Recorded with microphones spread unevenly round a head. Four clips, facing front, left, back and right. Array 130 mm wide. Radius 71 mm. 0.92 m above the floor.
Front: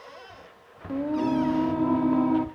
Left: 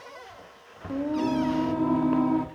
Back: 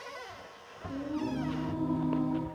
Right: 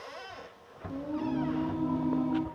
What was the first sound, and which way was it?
Singing, 35° left.